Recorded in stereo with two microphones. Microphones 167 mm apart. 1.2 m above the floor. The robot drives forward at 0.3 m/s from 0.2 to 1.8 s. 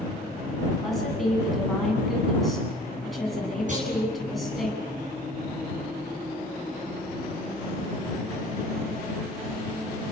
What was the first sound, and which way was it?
A woman speaking, centre (ahead or behind).